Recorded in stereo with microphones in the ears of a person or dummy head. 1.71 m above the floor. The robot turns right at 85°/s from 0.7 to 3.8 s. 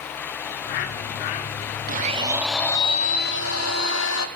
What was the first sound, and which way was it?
A bird, 65° left.